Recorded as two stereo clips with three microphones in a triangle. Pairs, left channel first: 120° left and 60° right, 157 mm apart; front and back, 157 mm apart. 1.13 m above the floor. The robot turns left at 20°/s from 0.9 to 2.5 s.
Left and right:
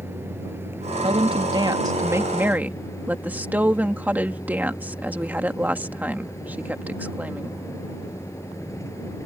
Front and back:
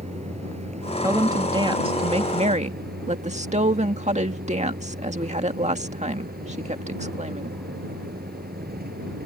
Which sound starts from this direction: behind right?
A vehicle, at 0.0 s.